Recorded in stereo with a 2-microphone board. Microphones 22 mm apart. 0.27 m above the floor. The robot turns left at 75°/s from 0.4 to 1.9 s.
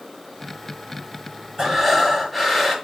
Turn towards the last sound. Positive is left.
turn(degrees=-15)  # may be behind; listen again after turning